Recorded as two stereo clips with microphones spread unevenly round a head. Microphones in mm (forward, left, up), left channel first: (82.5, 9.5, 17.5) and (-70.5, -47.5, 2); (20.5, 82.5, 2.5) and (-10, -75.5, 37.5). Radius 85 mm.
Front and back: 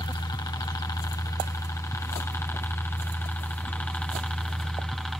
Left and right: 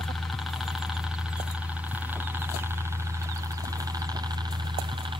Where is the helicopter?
30° left; by 5.2 s 75° right.